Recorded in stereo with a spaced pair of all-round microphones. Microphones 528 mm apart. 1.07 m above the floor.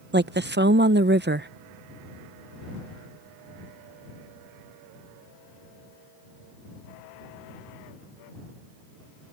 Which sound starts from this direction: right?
A woman speaking, at 0.1 s.